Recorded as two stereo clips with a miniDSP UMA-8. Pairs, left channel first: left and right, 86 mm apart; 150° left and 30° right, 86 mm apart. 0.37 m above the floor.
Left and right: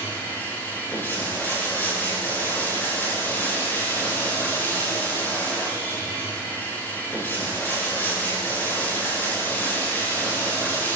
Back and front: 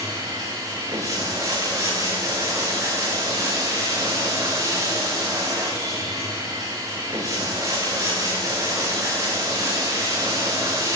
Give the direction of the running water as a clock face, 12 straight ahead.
11 o'clock.